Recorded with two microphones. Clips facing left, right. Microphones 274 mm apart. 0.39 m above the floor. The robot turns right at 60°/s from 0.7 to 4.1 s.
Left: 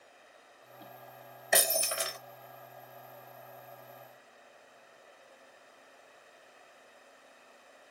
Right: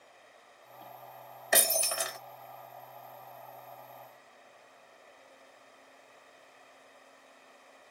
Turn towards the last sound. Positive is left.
turn(degrees=155)